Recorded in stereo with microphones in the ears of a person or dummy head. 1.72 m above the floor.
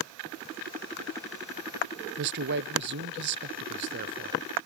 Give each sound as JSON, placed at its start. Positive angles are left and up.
{"t": 2.2, "sound": "a man speaking", "side_deg": -60, "distance_m": 0.8}